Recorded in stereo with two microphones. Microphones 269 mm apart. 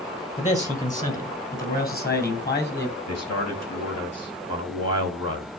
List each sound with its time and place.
0.4 s a man speaking: 25° left (ahead or behind), 3 m; by 3.0 s 40° left (ahead or behind), 4.5 m
3.1 s a man speaking: 70° left (ahead or behind), 4 m